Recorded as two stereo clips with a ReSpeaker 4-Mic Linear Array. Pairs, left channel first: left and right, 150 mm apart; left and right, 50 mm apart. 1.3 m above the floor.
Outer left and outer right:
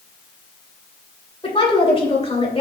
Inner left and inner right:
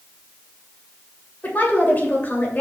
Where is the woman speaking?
40° left (ahead or behind), 2.5 m.